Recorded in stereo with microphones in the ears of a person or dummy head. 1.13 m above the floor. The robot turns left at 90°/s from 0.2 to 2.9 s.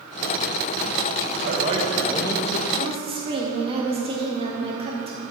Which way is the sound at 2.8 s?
35° right (ahead or behind).